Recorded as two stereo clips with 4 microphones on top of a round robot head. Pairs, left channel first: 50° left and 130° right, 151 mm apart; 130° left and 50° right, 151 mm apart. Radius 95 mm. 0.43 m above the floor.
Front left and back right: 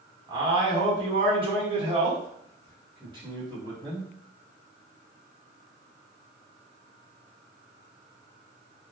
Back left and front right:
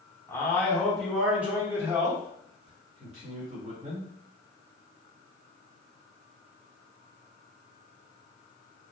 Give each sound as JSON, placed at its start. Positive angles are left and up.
{"t": 0.3, "sound": "a man speaking", "azimuth_deg": -165, "distance_m": 1.7}